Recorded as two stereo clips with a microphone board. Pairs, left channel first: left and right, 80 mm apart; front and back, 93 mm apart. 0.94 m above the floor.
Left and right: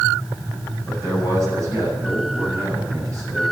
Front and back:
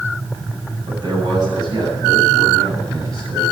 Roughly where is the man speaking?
Behind right.